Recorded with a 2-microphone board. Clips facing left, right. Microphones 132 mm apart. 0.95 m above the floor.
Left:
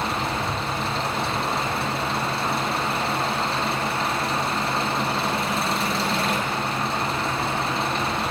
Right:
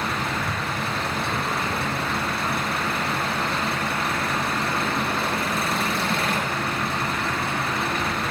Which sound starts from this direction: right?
An engine running, at 0.0 s.